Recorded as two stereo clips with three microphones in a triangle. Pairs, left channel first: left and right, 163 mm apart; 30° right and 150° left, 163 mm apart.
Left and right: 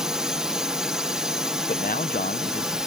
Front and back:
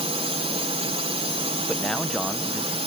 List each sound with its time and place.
0.0 s a drone: 175° right
1.7 s a man speaking: 60° left